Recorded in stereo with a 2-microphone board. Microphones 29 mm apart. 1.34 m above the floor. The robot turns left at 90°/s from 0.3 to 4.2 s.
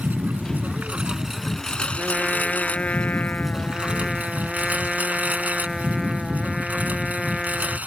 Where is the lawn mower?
75° right; by 7.9 s 65° right.